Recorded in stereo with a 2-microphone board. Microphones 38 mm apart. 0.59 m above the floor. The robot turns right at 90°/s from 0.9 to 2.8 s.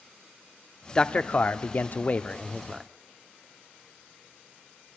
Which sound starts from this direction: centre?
A man speaking, at 0.9 s.